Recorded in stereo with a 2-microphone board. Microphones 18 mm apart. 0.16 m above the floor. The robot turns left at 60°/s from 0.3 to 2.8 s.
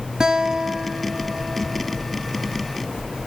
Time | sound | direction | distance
0.2 | a guitar | 60° right | 1.3 m